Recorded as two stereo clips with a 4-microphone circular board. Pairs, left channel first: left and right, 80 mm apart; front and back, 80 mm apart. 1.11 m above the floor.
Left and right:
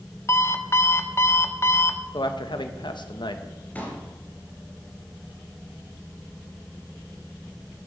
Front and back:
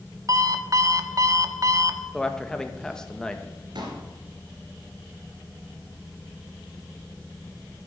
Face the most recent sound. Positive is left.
turn(degrees=160)